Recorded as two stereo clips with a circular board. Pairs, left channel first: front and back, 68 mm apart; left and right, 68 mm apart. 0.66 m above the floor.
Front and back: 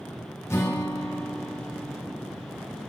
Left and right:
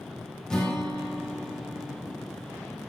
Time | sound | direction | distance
0.5 | a guitar | 15° left | 1.3 m